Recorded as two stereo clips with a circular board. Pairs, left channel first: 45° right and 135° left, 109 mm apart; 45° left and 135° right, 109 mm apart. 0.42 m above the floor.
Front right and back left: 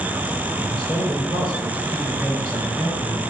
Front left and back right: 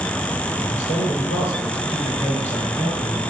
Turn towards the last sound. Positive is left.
turn(degrees=55)